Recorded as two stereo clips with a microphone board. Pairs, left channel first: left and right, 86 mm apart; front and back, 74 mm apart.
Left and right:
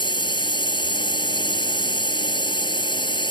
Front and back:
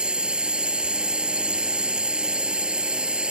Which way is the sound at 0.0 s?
100° left.